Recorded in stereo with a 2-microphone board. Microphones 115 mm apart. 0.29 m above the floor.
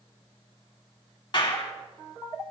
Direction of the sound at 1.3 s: 45° left (ahead or behind).